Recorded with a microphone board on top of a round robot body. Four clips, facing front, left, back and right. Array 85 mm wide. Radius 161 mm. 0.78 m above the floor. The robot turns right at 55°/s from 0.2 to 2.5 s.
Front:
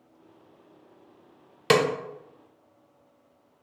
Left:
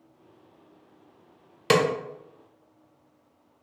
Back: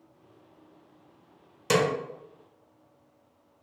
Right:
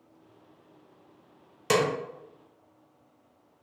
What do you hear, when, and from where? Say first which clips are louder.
1.7 s a snare drum: left 3 dB, front 3 dB; 35° left, 0.6 m; by 1.9 s 45° left, 0.6 m